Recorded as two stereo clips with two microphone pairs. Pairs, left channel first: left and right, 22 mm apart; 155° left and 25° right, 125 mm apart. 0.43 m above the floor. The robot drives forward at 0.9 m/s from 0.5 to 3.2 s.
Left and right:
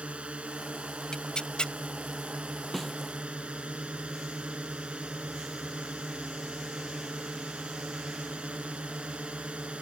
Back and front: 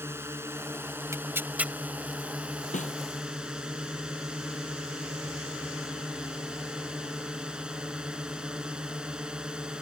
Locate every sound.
0.0 s a drone: 95° right; by 9.8 s 105° right
1.1 s tearing paper: 40° left; by 1.7 s 60° left
2.7 s a snare drum: 165° left